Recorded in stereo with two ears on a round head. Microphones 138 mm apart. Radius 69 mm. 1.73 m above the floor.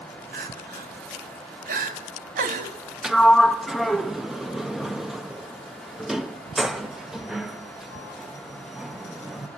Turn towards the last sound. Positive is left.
turn(degrees=0)  # may be behind; listen again after turning